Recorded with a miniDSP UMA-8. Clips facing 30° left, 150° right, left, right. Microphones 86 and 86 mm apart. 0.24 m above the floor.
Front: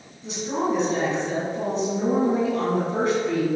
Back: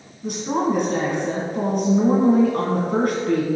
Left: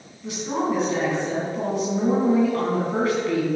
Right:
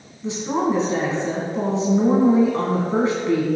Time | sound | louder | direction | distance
0.2 | a woman speaking | back 3 dB, right 3 dB | 150° right | 2.5 m